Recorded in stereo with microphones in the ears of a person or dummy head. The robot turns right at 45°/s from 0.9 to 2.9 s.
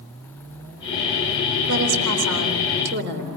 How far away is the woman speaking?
About 3.5 m.